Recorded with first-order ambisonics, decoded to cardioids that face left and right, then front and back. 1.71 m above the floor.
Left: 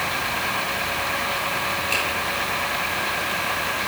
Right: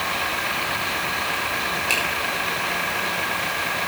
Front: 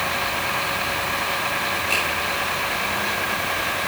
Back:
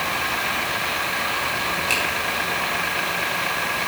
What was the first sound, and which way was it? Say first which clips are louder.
A finger snap: right 2 dB, even; 120° right.